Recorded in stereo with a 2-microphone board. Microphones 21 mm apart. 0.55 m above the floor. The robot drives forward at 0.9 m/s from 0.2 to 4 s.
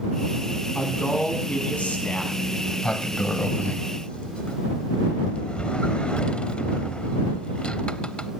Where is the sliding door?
30° left (ahead or behind), 1.0 m; by 8.3 s 50° left (ahead or behind), 0.6 m.